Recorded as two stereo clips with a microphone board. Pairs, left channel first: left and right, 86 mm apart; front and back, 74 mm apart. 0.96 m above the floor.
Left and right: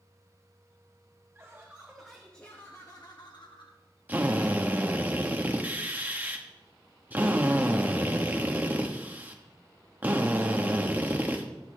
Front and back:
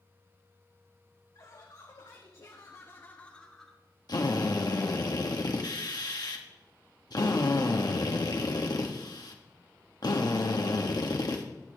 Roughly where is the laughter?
Ahead right.